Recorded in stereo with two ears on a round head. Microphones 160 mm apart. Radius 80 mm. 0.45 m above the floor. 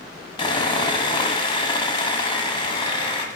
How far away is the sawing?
About 1.0 m.